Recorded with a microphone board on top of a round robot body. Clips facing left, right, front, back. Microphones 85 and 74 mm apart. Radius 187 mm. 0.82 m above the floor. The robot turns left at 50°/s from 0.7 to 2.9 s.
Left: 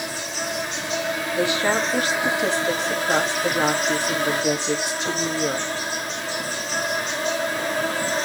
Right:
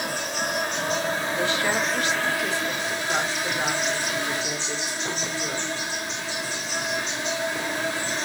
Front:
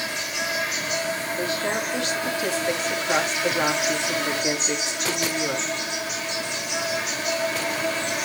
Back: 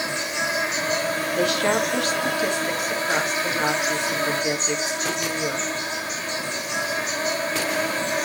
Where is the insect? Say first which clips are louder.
Right 1 dB, back 3 dB; 120° right, 2.5 m; by 8.2 s 130° left, 2.5 m.